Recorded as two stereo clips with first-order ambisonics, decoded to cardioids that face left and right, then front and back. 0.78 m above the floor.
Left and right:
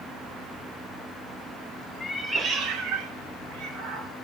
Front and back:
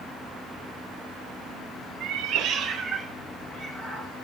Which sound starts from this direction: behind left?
A cat meowing, at 2.0 s.